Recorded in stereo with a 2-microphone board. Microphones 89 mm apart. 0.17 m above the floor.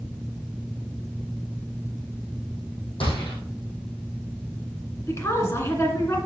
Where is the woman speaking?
30° left (ahead or behind), 2 m.